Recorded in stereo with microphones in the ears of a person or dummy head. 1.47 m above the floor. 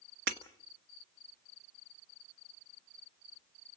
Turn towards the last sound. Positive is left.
turn(degrees=-60)  # may be behind; listen again after turning